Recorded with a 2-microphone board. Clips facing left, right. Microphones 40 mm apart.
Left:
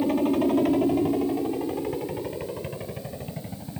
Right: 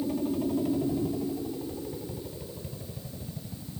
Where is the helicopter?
55° left (ahead or behind); by 3.8 s 60° left (ahead or behind).